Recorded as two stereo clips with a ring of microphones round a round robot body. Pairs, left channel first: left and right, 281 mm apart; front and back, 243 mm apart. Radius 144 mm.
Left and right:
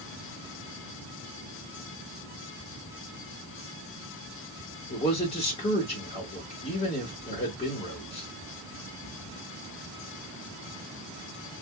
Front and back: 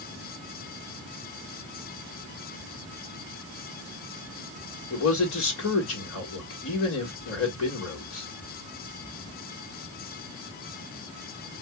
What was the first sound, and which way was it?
A man speaking, 20° left.